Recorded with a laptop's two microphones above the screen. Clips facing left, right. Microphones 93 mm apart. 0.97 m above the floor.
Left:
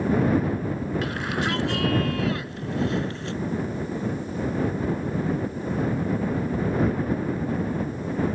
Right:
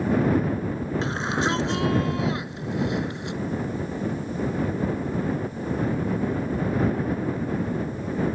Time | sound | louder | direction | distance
1.0 | a shout | right 2 dB | 25° right (ahead or behind) | ?